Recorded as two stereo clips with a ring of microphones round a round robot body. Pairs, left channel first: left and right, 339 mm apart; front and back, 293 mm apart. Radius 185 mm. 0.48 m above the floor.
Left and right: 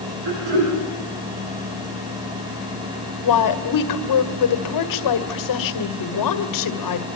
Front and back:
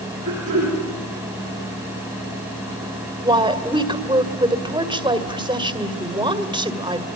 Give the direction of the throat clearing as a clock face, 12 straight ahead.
4 o'clock.